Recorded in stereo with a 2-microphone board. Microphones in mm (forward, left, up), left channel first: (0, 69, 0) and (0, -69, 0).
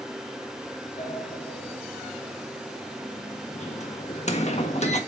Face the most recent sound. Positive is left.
turn(degrees=55)  # may be behind; listen again after turning